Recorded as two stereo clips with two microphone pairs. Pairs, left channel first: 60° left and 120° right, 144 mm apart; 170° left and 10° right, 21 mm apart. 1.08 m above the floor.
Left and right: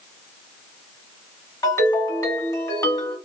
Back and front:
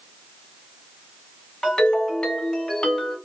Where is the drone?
No drone in this recording.